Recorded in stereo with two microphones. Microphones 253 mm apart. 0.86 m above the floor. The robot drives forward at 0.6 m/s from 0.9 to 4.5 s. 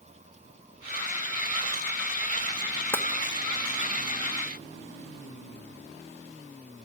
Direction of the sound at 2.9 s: 10° left (ahead or behind).